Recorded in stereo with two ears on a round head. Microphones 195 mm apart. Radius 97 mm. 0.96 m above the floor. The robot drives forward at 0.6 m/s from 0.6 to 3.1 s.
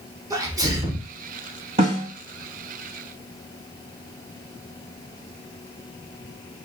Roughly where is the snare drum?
Right.